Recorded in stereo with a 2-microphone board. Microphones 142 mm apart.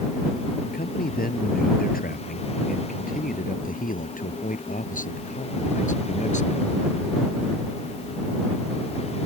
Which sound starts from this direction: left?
A man speaking, at 0.7 s.